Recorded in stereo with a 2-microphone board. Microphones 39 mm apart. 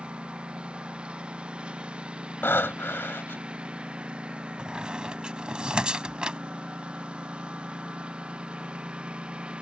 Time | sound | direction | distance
0.0 | a lawn mower | 25° right (ahead or behind) | ?
2.4 | breathing | 80° left | ?
4.6 | a squeak | 25° right (ahead or behind) | ?